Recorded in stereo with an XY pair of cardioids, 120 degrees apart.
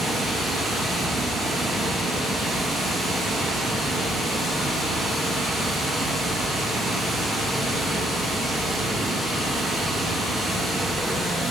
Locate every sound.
0.0 s running water: 30° right, 1.6 m